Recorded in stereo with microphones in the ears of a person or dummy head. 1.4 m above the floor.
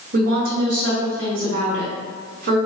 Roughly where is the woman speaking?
Right.